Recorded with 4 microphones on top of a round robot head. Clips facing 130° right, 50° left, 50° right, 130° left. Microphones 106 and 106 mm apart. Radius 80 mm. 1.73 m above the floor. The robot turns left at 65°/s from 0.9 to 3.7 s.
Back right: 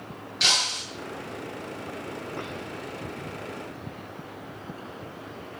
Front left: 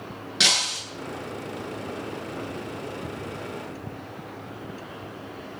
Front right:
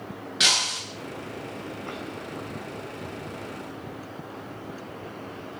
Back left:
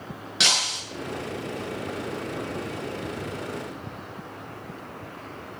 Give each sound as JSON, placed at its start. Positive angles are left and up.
{"t": 0.4, "sound": "breaking glass", "azimuth_deg": 75, "distance_m": 8.5}